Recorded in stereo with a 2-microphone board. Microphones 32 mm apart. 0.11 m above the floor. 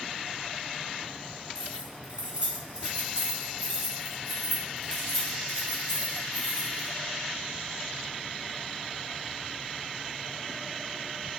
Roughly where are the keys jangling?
Right.